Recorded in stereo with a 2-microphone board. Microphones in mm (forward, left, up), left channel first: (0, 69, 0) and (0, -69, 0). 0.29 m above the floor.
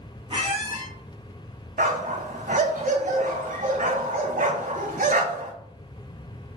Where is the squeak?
40° right (ahead or behind), 0.8 m.